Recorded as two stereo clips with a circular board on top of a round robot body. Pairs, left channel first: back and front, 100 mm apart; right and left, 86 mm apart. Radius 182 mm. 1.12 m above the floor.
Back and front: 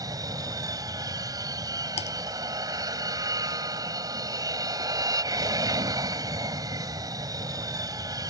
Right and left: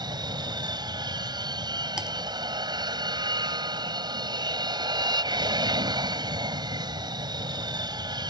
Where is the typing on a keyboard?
170° left.